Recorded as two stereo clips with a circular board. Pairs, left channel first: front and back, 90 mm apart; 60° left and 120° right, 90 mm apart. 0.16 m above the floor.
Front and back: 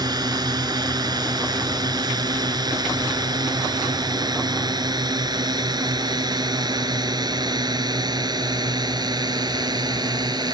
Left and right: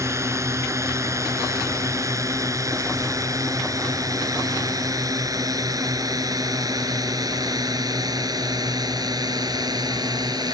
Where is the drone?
165° right; by 10.6 s 150° right.